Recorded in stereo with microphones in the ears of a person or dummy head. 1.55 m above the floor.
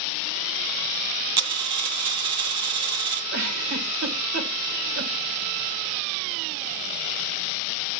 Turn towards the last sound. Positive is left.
turn(degrees=-55)  # may be behind; listen again after turning